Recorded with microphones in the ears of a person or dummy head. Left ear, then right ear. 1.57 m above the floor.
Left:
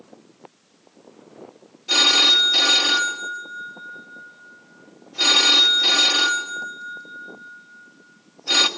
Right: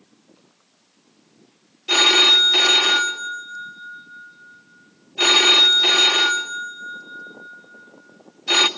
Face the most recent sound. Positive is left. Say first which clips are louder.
# right 2 dB
turn(degrees=-30)  # may be behind; listen again after turning